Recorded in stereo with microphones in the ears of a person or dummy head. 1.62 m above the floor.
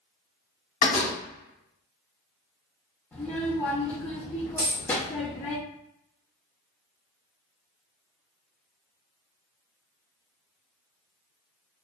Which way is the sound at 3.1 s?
15° left (ahead or behind).